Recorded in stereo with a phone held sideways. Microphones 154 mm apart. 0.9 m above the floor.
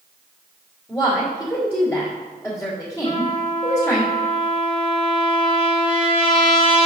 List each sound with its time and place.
0.9 s a woman speaking: 15° left (ahead or behind), 2.5 m
3.0 s a trumpet: 35° left (ahead or behind), 1.2 m